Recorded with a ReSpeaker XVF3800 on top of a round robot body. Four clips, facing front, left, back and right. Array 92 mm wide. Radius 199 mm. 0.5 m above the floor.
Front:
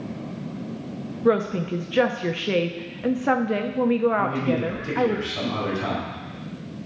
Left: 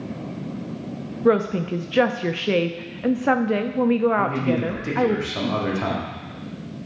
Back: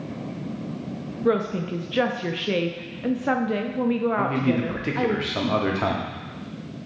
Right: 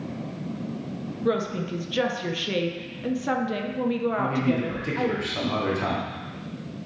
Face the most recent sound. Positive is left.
turn(degrees=165)